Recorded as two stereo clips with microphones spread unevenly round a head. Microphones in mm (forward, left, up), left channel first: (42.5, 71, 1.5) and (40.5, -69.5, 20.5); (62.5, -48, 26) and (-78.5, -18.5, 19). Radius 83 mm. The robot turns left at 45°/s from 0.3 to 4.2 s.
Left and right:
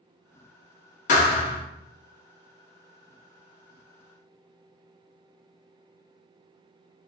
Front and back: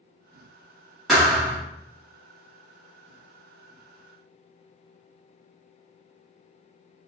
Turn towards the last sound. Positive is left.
turn(degrees=-65)